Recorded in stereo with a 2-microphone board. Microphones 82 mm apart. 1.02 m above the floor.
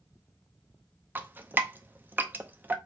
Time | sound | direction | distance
1.1 | dripping | 20° right (ahead or behind) | 0.6 m